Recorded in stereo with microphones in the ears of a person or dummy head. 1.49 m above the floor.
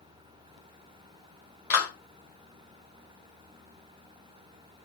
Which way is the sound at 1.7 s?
15° left (ahead or behind).